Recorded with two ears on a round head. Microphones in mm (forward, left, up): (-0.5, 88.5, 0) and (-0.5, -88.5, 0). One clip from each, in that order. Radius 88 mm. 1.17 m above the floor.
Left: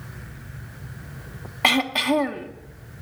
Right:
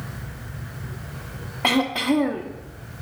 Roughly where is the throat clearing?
Left.